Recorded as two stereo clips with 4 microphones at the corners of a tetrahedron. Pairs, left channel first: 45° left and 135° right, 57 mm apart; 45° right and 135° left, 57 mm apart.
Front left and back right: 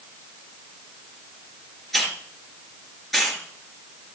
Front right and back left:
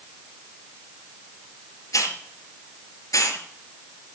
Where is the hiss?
40° right, 2.5 m.